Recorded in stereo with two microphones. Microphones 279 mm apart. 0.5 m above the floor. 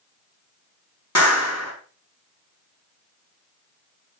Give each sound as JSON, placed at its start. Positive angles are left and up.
{"t": 1.1, "sound": "a clap", "side_deg": 65, "distance_m": 3.5}